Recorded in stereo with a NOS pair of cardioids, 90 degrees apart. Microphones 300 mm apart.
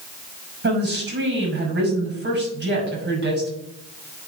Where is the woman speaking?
35° right, 6 m.